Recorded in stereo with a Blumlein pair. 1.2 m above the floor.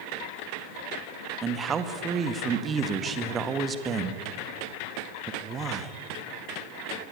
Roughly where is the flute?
I don't hear a flute.